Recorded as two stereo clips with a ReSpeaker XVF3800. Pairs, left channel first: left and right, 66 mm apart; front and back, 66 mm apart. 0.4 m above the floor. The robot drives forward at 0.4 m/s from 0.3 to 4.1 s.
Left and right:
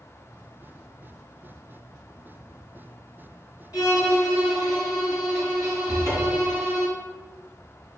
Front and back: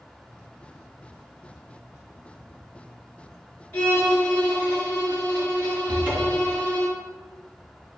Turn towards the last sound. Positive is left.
turn(degrees=115)